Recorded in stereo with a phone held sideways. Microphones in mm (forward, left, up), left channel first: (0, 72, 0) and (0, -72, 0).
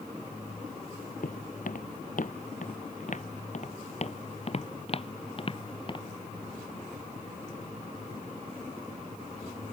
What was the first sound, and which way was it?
Footsteps, 70° left (ahead or behind).